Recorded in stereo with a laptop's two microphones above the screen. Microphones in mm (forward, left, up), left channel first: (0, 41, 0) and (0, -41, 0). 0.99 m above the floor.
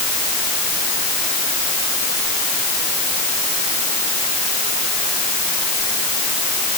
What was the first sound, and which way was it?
Only background noise.